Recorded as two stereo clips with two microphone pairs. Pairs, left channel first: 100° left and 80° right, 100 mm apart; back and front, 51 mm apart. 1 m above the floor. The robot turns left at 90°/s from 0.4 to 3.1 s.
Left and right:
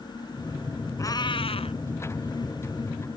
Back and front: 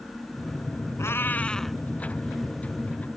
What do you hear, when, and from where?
1.0 s a cat meowing: 155° left; by 1.8 s 85° left